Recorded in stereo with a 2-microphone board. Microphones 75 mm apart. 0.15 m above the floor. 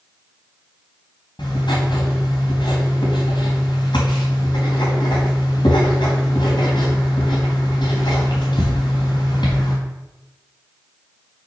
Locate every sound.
1.4 s writing: 80° left, 4 m